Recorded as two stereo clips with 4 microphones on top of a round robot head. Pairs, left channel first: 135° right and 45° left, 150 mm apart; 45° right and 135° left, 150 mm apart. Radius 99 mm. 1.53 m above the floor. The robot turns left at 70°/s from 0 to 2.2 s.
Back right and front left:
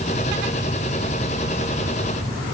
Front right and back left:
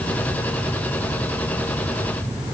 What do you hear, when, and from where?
Only background noise.